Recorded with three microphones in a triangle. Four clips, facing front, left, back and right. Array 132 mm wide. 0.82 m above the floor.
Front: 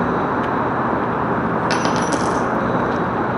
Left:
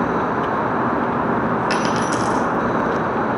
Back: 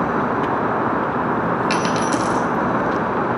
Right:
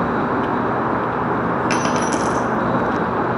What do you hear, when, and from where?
1.7 s a dropped coin: 35° right, 0.6 m